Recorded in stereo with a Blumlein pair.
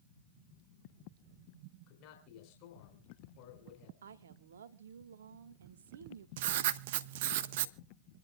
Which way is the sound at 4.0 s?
65° right.